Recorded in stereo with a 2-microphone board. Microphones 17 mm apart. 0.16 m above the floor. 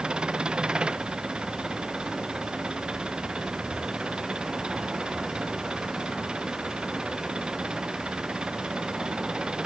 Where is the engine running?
65° right (ahead or behind).